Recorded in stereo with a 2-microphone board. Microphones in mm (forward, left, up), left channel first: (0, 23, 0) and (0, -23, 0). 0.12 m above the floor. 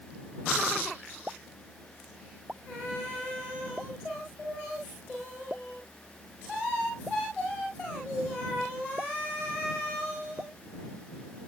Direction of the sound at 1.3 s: 25° right (ahead or behind).